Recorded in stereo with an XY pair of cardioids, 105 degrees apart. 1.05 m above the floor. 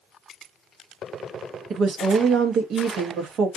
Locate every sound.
1.7 s a woman speaking: 65° right, 1.0 m